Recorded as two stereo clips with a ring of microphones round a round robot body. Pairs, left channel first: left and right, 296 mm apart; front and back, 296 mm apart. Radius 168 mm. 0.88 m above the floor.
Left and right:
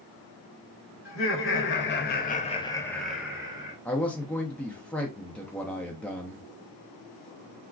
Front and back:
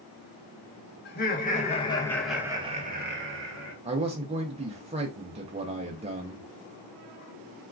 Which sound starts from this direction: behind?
A man speaking, at 3.9 s.